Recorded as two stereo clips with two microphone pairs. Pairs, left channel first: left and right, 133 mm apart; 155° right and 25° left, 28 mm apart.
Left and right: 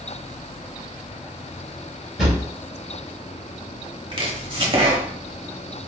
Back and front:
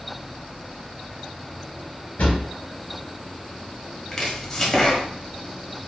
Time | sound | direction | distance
2.2 | a drawer | 175° right | 1.8 m
4.1 | chopping | 100° right | 0.8 m